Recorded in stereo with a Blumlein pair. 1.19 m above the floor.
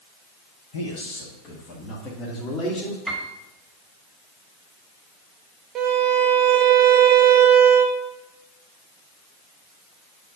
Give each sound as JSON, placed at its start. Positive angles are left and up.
{"t": 0.7, "sound": "a man speaking", "azimuth_deg": 50, "distance_m": 1.6}
{"t": 3.1, "sound": "a piano", "azimuth_deg": 0, "distance_m": 1.9}
{"t": 5.8, "sound": "a violin", "azimuth_deg": -30, "distance_m": 1.0}